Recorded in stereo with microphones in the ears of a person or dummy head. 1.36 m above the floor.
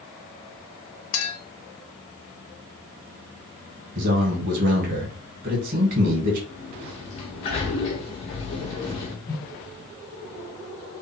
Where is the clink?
75° left (ahead or behind), 1.1 m.